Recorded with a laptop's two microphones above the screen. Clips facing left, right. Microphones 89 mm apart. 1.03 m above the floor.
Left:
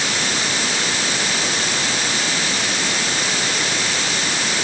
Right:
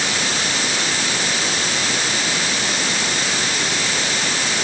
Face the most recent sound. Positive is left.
No sound to turn to.